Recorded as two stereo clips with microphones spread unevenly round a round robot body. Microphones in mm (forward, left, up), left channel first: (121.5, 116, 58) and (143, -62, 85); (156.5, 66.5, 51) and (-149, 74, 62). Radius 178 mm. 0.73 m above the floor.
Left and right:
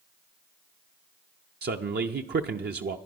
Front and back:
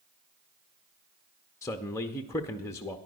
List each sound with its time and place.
1.6 s a man speaking: 80° right, 0.6 m